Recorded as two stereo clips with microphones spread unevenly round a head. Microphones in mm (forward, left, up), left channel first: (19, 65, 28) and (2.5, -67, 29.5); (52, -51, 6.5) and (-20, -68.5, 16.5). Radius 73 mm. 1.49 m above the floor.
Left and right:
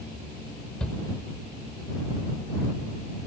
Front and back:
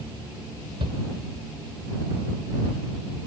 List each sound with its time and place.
0.8 s a shout: 170° left